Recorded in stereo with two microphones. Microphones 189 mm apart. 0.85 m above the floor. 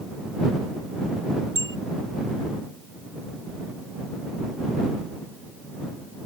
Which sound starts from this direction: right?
A bicycle bell, at 1.6 s.